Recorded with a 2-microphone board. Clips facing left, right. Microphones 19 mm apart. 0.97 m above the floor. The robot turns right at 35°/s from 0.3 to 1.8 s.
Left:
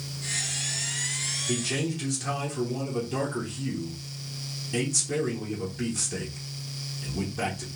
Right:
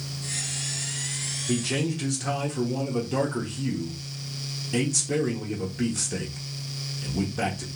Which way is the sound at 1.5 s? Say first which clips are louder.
Right 4 dB; 15° right (ahead or behind).